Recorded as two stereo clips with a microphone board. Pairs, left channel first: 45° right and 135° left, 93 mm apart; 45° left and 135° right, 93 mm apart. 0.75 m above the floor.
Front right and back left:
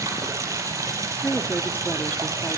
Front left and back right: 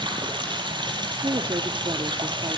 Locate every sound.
0.0 s running water: 170° right, 4.5 m
1.2 s a woman speaking: 115° right, 1.3 m